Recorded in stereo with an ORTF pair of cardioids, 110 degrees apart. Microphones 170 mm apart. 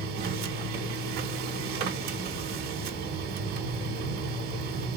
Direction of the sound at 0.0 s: 70° right.